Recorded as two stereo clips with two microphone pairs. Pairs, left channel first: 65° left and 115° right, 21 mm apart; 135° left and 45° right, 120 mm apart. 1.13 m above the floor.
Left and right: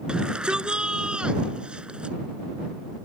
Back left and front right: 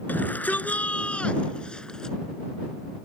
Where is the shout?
150° right; by 2.2 s 140° right.